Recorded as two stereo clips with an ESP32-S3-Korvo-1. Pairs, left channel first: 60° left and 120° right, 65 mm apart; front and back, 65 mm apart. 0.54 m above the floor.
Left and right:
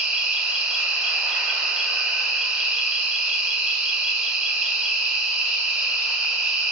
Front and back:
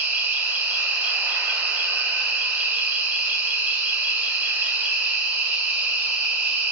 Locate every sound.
0.0 s an insect: 175° left, 0.7 m